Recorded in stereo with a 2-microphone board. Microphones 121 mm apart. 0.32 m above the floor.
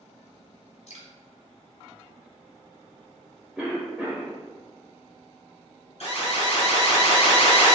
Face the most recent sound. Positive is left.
turn(degrees=55)  # may be behind; listen again after turning